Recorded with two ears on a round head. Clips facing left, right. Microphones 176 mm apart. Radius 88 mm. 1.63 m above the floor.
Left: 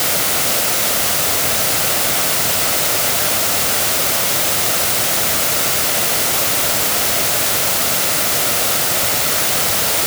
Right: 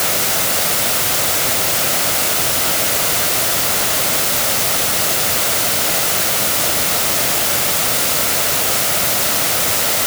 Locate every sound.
Only background noise.